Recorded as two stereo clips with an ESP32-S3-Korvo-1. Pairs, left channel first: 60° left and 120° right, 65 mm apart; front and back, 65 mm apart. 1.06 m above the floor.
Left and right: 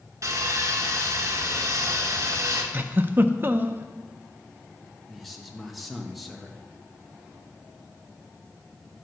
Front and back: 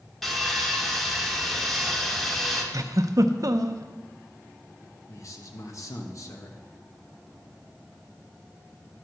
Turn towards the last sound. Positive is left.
turn(degrees=-30)